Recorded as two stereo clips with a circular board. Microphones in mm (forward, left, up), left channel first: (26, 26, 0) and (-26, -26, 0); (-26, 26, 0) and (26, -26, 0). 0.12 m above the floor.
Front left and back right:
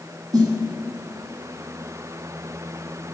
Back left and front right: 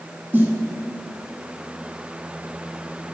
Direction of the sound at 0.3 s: 110° right.